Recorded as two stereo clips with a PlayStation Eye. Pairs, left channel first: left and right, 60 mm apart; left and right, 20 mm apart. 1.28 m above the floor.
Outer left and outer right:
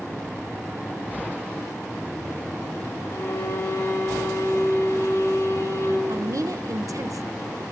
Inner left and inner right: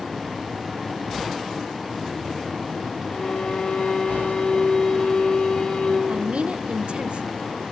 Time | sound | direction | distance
3.1 | a violin | 60° left (ahead or behind) | 4.5 m
6.1 | a woman speaking | 70° right (ahead or behind) | 0.6 m